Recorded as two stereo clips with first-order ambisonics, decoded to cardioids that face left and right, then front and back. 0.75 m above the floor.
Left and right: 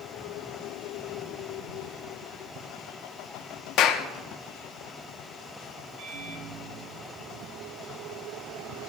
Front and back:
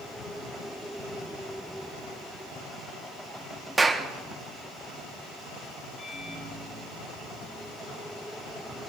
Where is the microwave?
65° right, 2.5 m.